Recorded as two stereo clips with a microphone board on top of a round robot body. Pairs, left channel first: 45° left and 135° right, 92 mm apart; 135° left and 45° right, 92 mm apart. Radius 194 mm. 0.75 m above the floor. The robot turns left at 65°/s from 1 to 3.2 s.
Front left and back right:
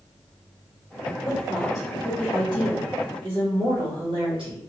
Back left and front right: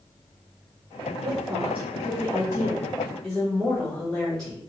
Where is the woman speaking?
15° right, 1.3 m; by 4.6 s 140° right, 1.3 m.